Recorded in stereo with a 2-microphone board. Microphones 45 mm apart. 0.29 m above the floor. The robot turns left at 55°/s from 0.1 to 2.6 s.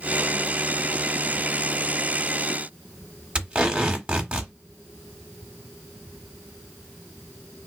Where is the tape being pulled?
30° right (ahead or behind), 1.0 m.